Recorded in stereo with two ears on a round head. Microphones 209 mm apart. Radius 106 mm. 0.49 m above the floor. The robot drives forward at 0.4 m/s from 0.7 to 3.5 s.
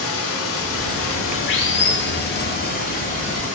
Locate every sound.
0.0 s running water: 70° left (ahead or behind), 0.9 m; by 3.6 s 35° left (ahead or behind), 1.5 m